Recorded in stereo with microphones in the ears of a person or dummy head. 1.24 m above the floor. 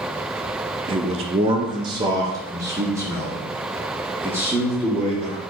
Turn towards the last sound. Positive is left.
turn(degrees=-15)  # may be behind; listen again after turning